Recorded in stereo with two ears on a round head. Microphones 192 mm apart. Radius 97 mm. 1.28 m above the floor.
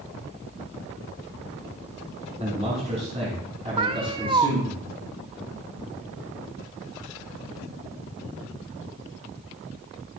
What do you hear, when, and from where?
2.4 s a man speaking: 35° right (ahead or behind), 6.5 m; by 4.8 s 25° right (ahead or behind), 6.5 m
3.8 s a cat meowing: 25° right (ahead or behind), 0.7 m